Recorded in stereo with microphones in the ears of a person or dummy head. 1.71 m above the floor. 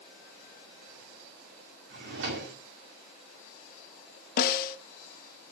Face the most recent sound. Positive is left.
turn(degrees=50)  # may be behind; listen again after turning